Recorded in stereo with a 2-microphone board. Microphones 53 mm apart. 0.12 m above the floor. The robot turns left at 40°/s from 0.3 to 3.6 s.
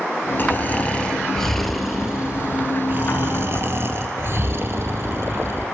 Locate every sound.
0.4 s snoring: 50° left, 1.3 m; by 5.7 s 75° right, 1.3 m